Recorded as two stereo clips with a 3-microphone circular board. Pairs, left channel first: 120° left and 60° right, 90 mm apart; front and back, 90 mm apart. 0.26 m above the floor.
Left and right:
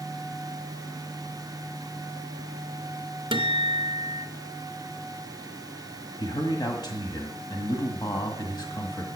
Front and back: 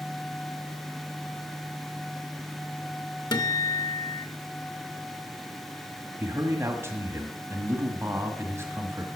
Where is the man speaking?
135° left, 1.7 m.